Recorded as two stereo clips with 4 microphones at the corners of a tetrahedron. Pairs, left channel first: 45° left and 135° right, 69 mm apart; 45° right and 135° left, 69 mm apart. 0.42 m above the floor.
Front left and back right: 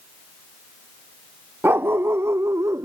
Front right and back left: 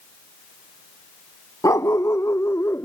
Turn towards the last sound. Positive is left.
turn(degrees=-95)